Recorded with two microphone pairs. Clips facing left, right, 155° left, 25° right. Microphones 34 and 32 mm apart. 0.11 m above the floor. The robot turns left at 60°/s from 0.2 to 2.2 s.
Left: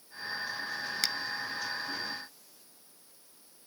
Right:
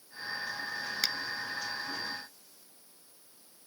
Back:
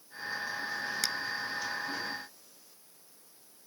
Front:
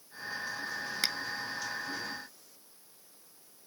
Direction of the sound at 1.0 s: 20° right.